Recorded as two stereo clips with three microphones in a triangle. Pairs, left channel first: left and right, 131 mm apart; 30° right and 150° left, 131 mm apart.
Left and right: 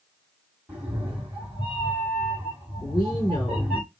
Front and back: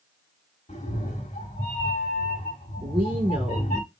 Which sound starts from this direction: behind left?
A woman speaking, at 2.8 s.